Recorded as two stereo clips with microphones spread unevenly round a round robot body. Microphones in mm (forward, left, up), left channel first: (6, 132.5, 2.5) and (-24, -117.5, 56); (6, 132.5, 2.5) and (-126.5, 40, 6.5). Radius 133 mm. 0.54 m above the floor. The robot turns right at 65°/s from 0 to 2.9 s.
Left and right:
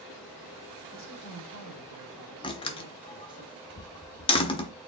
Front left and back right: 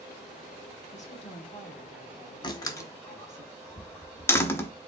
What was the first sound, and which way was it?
A woman speaking, 55° left.